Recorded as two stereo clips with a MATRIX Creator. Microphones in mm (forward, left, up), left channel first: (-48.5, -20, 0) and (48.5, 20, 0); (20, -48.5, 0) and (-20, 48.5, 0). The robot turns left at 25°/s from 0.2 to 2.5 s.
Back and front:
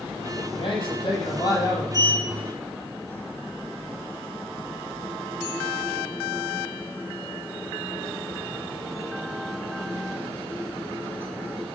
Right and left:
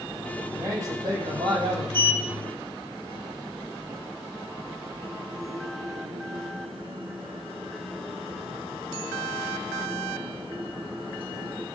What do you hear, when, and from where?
0.5 s a man speaking: straight behind, 8 m; by 1.8 s 145° left, 8 m
1.9 s a sliding door: 145° left, 3 m; by 11.7 s 135° left, 3 m